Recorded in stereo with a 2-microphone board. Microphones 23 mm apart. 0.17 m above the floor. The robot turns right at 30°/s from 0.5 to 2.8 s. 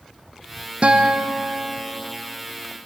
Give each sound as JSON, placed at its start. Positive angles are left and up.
{"t": 0.8, "sound": "a guitar", "azimuth_deg": -60, "distance_m": 2.5}